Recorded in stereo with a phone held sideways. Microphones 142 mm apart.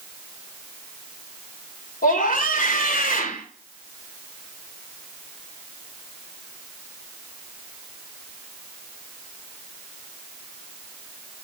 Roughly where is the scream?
Left.